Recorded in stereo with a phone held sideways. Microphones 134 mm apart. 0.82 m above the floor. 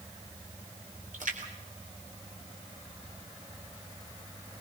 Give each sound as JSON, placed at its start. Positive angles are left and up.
{"t": 1.1, "sound": "a splash", "side_deg": -75, "distance_m": 3.5}